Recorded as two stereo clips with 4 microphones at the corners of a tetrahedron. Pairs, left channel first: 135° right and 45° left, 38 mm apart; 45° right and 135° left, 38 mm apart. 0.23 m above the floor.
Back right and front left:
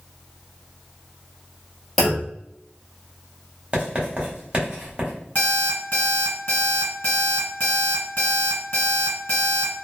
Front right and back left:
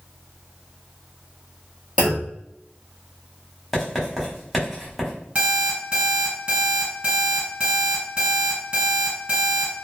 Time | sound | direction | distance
2.0 | a clunk | 150° left | 1.3 m
3.7 | writing | 50° left | 1.1 m
5.3 | an alarm clock | 175° right | 1.5 m